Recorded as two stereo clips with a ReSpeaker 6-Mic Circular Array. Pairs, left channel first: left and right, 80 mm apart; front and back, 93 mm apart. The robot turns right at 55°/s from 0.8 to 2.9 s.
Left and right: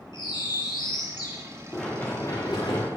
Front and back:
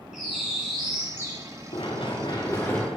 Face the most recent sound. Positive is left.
turn(degrees=85)